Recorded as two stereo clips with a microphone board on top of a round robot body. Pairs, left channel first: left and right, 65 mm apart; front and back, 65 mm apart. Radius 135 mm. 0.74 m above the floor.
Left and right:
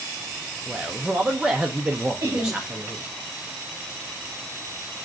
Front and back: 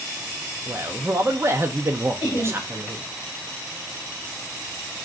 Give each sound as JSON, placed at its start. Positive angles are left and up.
{"t": 0.7, "sound": "a man speaking", "azimuth_deg": -160, "distance_m": 0.8}
{"t": 2.2, "sound": "laughter", "azimuth_deg": -35, "distance_m": 2.0}